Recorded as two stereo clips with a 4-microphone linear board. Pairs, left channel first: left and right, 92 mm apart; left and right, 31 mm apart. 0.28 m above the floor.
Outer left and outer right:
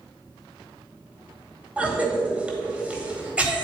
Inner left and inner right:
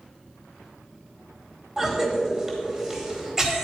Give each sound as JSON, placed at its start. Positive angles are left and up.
{"t": 1.8, "sound": "a cough", "side_deg": -15, "distance_m": 1.3}